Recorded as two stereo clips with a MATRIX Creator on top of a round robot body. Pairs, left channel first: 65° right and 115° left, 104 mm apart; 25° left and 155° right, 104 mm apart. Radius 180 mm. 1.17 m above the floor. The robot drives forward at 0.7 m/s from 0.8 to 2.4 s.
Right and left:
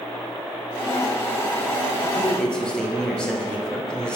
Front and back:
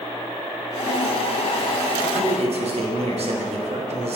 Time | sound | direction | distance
2.0 | a man speaking | 140° right | 1.0 m